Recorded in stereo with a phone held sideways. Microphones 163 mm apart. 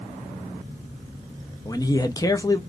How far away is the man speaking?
About 0.6 m.